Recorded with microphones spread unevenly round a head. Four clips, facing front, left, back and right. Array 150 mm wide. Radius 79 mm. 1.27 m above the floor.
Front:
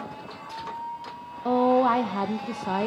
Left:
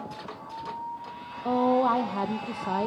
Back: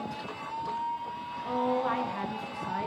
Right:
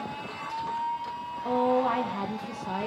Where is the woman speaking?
25° left, 1.0 m.